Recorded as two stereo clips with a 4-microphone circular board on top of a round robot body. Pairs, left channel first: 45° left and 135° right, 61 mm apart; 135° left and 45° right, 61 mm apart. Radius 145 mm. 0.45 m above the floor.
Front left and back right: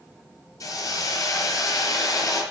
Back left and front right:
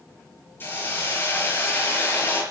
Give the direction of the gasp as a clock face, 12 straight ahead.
No gasp in this recording.